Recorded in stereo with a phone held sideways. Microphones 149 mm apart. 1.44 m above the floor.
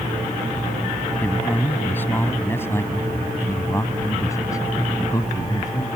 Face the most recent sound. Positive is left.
turn(degrees=25)  # may be behind; listen again after turning